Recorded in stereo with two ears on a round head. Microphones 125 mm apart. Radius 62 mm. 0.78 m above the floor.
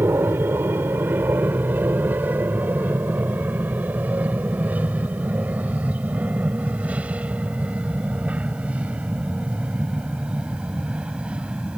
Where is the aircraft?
15° right (ahead or behind); by 11.8 s 10° right (ahead or behind).